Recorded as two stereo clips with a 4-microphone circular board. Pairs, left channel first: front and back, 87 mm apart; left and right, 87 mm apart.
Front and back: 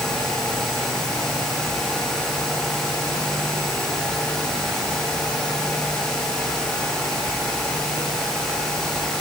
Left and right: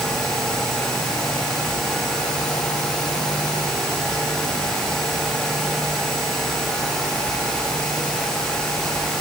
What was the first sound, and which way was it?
Only background noise.